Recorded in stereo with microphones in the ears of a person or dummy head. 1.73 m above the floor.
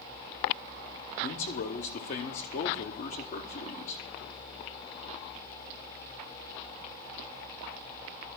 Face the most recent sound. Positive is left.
turn(degrees=40)  # may be behind; listen again after turning